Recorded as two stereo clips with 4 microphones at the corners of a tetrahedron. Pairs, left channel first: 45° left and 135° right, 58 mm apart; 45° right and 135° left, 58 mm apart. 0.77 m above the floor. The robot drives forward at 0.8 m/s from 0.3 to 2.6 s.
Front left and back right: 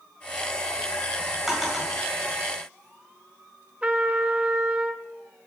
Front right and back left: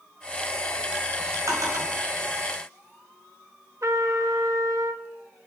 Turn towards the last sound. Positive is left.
turn(degrees=160)